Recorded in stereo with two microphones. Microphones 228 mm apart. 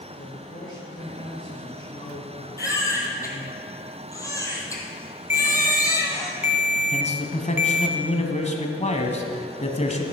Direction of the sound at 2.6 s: 15° left (ahead or behind).